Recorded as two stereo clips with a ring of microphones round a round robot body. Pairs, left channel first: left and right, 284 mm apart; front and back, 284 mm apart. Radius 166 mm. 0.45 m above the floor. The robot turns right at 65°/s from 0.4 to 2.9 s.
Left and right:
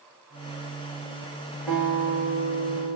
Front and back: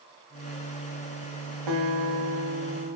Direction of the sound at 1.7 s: 175° left.